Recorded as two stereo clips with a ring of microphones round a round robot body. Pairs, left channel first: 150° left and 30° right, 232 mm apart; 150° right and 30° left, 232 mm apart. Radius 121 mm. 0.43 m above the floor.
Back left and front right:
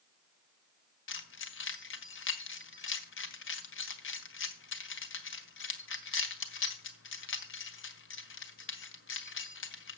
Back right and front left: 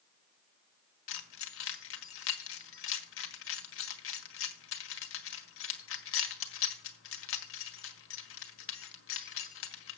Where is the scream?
No scream in this recording.